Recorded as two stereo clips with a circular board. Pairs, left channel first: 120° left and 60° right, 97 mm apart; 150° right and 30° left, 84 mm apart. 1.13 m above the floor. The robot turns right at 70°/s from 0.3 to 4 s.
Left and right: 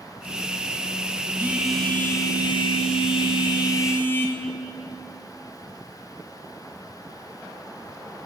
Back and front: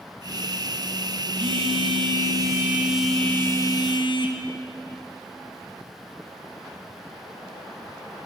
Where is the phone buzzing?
5° left, 0.7 m; by 4.4 s 170° right, 0.7 m.